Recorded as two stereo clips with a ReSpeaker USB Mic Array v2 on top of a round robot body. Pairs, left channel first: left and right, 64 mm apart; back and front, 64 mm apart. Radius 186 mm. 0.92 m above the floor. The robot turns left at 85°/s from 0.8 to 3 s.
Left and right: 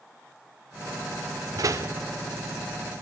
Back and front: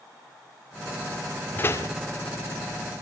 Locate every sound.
1.6 s a door slam: 115° right, 2 m; by 1.9 s 150° right, 2 m